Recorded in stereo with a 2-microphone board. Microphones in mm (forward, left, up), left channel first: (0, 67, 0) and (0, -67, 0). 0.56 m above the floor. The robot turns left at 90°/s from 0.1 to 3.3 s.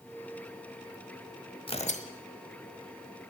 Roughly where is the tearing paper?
Behind left.